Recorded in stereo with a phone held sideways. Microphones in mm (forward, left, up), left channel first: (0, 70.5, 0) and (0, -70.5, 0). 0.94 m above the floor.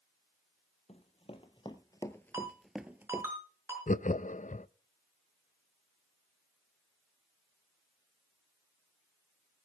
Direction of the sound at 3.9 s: 65° left (ahead or behind).